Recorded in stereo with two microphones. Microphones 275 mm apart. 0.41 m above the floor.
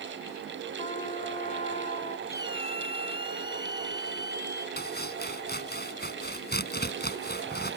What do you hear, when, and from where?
0.8 s a trumpet: 25° left (ahead or behind)
2.3 s a squeak: 35° left (ahead or behind)
4.8 s chopping: 35° left (ahead or behind)